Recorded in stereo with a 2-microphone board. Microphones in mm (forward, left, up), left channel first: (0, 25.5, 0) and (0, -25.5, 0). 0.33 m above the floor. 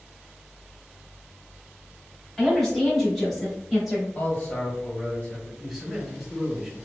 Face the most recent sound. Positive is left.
turn(degrees=5)  # may be behind; listen again after turning